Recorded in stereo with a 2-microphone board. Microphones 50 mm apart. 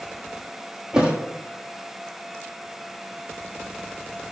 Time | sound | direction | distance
0.9 | a thud | 15° right (ahead or behind) | 1.9 m